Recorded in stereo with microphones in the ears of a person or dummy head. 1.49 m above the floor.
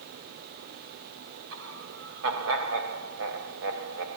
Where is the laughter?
75° right (ahead or behind), 3 m.